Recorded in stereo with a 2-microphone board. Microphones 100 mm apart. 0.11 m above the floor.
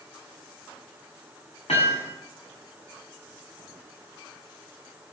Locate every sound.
1.7 s hammering: 85° left, 3.5 m